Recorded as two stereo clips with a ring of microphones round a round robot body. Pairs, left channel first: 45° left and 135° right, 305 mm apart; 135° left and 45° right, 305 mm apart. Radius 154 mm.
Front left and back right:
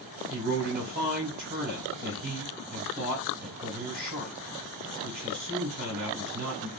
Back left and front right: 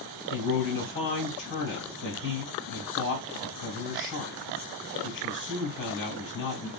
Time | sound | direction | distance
0.3 | a man speaking | 175° left | 1.8 m